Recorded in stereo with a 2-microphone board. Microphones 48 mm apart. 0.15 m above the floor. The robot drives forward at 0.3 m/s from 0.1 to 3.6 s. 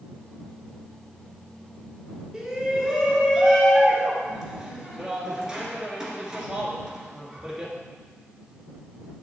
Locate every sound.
2.3 s a shout: 10° right (ahead or behind), 1.5 m